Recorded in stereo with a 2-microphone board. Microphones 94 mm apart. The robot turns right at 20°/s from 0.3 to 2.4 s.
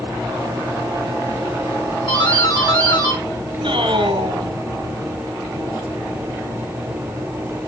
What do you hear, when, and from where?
2.1 s a doorbell: 60° left (ahead or behind), 5.5 m; by 3.2 s 50° left (ahead or behind), 5.5 m
3.6 s a man speaking: 70° right (ahead or behind), 2 m